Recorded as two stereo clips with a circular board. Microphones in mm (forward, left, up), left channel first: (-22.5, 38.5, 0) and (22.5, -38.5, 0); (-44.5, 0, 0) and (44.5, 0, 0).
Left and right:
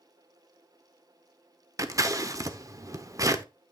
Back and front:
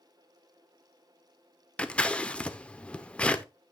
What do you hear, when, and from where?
1.8 s scissors: 105° right, 1.0 m